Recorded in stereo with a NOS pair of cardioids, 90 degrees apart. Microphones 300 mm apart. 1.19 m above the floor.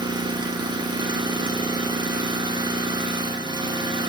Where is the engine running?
15° right, 1.0 m.